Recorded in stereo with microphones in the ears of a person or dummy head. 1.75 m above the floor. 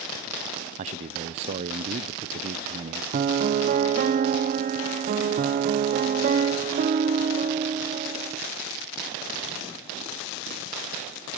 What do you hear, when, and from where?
0.8 s a man speaking: 25° right (ahead or behind), 0.6 m
3.1 s a piano: 45° right (ahead or behind), 1.0 m